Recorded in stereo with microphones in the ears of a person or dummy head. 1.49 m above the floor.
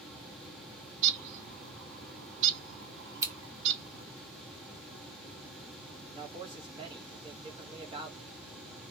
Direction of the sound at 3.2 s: 15° right (ahead or behind).